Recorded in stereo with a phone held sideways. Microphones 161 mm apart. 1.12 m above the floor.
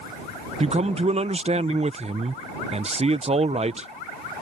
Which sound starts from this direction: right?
A man speaking, at 0.6 s.